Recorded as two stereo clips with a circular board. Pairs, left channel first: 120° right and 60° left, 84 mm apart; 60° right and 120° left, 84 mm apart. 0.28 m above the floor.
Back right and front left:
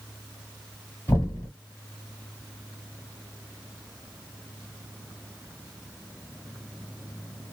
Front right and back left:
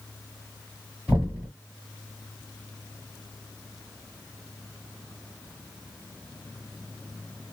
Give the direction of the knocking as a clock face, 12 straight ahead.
6 o'clock.